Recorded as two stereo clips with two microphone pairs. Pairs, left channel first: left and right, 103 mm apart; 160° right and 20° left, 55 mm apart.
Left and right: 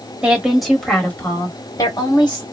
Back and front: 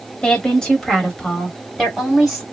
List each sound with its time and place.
0.2 s a woman speaking: 145° right, 1.4 m; by 2.4 s 110° left, 1.9 m